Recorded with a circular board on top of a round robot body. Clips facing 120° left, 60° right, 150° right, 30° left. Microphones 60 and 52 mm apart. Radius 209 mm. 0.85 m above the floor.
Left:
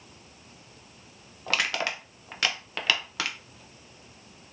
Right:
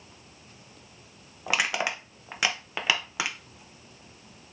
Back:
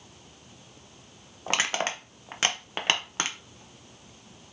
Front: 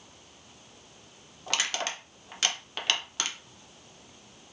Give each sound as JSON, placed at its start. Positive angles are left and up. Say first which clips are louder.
{"t": 1.5, "sound": "crushing", "louder": "right 1 dB, back 4 dB", "azimuth_deg": -125, "distance_m": 0.8}